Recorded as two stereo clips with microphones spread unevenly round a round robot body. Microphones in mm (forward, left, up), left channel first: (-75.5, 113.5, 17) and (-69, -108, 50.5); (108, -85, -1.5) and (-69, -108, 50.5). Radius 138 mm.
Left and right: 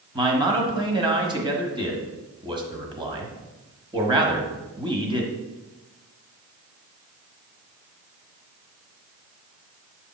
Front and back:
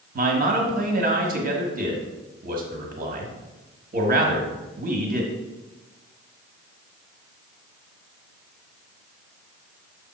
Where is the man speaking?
155° right, 1.3 m.